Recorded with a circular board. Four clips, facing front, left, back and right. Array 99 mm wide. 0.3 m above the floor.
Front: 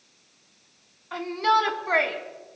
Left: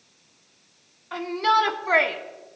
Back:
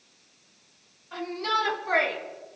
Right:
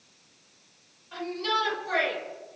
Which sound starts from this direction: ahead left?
A shout, at 1.1 s.